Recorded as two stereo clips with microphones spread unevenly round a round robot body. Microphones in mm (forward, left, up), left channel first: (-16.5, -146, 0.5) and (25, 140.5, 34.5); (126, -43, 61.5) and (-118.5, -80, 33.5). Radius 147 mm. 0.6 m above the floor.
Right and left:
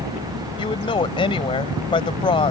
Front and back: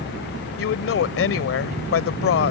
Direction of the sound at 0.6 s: 25° right.